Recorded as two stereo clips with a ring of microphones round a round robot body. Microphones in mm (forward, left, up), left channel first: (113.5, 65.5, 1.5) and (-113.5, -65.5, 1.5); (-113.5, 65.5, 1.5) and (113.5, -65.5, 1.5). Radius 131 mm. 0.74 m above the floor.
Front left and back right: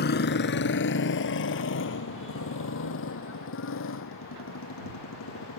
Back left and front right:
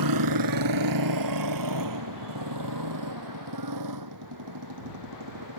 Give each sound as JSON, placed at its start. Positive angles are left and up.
{"t": 0.0, "sound": "a motorcycle", "azimuth_deg": -25}